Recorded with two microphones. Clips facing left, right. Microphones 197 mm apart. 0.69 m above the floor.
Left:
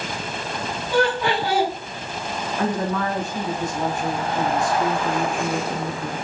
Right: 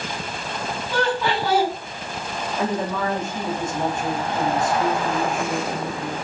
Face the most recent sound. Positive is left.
turn(degrees=-25)  # may be behind; listen again after turning